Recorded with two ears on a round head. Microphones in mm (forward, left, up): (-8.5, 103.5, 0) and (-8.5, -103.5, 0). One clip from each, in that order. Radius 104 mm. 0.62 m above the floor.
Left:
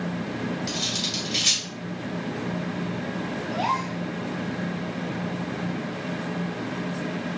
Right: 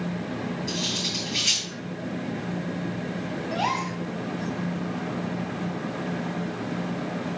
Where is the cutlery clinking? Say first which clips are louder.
Even; 65° left (ahead or behind), 3 m.